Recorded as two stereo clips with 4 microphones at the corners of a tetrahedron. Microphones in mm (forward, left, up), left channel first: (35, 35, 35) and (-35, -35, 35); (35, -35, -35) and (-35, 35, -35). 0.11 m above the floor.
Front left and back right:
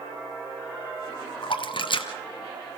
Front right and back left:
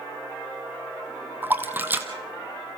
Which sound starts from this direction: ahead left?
A splash, at 1.4 s.